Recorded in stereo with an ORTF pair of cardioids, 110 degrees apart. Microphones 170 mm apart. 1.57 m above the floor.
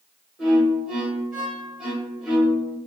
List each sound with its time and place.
0.4 s a violin: 5° right, 1.9 m